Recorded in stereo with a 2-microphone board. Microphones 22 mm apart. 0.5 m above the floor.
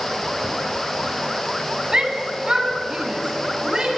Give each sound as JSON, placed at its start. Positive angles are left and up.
{"t": 1.9, "sound": "a shout", "side_deg": -30, "distance_m": 3.0}